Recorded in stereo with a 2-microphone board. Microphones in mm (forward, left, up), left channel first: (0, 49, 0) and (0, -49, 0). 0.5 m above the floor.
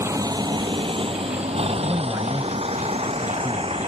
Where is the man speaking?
25° right (ahead or behind).